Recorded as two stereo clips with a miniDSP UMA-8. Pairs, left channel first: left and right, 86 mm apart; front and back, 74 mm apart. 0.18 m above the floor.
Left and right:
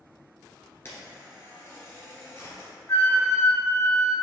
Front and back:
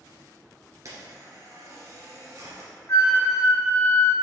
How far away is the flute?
About 1.1 m.